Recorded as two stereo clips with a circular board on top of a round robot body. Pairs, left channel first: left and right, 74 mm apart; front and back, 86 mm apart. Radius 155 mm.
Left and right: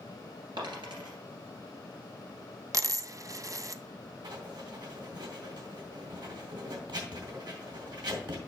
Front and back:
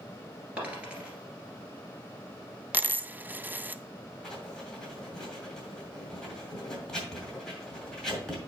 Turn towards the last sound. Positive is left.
turn(degrees=-85)